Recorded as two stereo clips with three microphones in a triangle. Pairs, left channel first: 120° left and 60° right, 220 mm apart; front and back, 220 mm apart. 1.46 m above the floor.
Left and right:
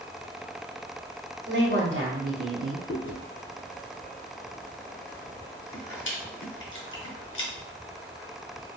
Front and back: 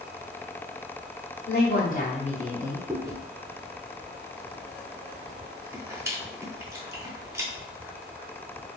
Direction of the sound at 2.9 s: 100° left.